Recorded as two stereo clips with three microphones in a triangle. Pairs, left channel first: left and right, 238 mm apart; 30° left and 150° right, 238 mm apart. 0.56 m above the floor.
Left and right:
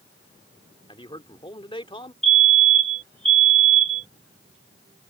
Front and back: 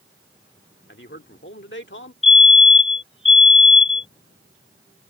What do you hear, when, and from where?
0.9 s a man speaking: 30° left
2.2 s a fire alarm: 30° right